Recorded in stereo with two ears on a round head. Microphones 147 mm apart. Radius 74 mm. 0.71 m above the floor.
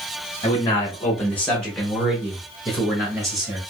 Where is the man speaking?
25° left (ahead or behind), 1.1 m; by 3.6 s 25° right (ahead or behind), 1.2 m.